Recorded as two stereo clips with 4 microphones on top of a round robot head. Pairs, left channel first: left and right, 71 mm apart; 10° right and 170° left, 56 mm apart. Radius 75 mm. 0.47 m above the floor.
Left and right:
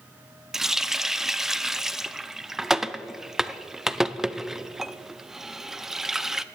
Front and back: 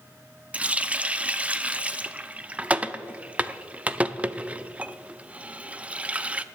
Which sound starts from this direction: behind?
A running tap, at 0.5 s.